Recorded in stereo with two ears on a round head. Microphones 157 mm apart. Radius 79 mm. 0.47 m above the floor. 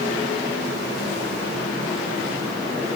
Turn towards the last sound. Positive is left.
No sound to turn to.